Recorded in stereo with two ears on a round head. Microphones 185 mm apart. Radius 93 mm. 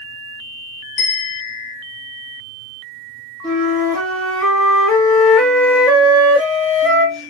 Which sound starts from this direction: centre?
A flute, at 3.4 s.